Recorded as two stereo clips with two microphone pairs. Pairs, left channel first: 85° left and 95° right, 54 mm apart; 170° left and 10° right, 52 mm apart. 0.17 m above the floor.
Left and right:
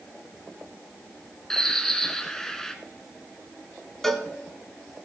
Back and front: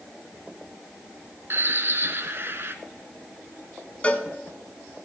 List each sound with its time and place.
1.5 s a bird: 10° left, 0.9 m
4.0 s a cowbell: 160° left, 0.8 m